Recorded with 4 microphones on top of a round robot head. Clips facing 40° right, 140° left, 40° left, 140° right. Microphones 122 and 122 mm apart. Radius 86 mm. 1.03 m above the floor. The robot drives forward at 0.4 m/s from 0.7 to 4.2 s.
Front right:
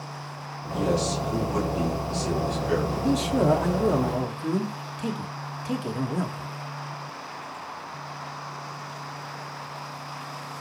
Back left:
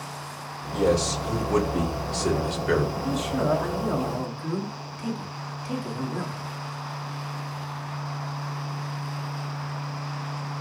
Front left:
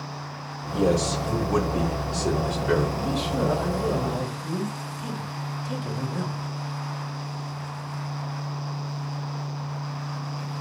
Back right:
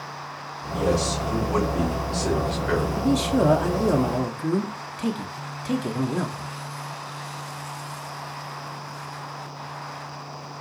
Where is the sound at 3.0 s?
95° right, 1.8 m; by 6.5 s 110° right, 1.9 m.